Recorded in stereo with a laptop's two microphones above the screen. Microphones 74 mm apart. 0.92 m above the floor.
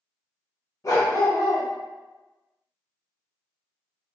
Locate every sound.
0.8 s a dog barking: 45° left (ahead or behind), 1.0 m